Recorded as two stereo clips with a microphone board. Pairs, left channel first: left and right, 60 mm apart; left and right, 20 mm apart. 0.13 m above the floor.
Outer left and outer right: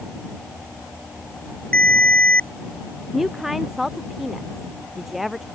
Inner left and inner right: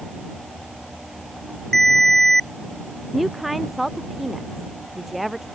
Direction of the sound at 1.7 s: 25° left (ahead or behind).